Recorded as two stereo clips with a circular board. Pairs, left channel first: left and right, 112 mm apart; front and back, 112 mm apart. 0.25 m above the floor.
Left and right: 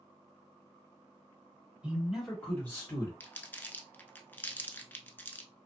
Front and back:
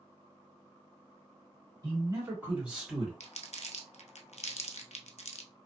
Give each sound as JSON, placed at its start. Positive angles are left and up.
{"t": 1.8, "sound": "a man speaking", "azimuth_deg": -160, "distance_m": 1.6}
{"t": 3.2, "sound": "crumpling", "azimuth_deg": 15, "distance_m": 0.5}